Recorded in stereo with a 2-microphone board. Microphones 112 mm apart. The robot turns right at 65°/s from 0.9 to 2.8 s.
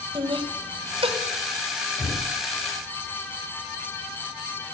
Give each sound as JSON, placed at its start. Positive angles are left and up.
{"t": 0.1, "sound": "laughter", "side_deg": -50, "distance_m": 1.5}
{"t": 2.0, "sound": "knocking", "side_deg": -40, "distance_m": 6.0}